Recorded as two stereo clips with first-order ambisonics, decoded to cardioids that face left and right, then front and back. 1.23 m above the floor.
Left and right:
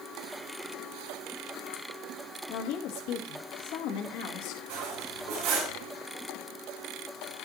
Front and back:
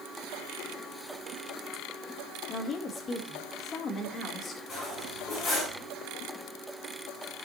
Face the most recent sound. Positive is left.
turn(degrees=-65)